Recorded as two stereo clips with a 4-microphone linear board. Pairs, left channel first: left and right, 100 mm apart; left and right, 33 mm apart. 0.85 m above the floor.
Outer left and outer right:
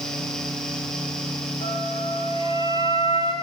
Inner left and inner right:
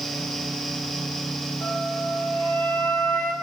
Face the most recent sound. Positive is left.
turn(degrees=75)  # may be behind; listen again after turning